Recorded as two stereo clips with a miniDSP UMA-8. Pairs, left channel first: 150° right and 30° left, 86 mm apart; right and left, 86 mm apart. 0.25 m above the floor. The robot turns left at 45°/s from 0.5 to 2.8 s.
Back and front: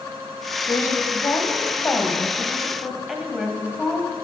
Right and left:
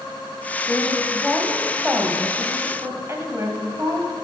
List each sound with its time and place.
0.7 s a woman speaking: 145° right, 1.1 m; by 4.2 s 115° left, 1.1 m